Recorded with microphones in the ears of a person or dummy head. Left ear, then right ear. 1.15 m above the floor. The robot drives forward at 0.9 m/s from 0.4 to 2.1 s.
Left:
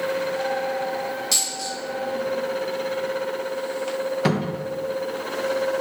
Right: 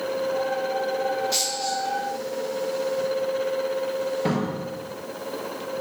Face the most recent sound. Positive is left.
turn(degrees=50)  # may be behind; listen again after turning